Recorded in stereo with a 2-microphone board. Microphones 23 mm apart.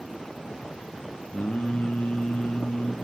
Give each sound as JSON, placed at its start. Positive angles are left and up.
{"t": 1.3, "sound": "singing", "side_deg": 85, "distance_m": 2.5}